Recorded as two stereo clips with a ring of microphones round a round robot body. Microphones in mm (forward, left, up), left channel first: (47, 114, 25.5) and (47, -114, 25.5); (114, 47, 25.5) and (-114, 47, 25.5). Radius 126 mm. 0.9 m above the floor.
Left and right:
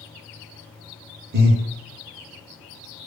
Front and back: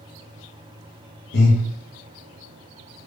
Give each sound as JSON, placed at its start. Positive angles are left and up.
{"t": 1.3, "sound": "breathing", "azimuth_deg": -45, "distance_m": 0.7}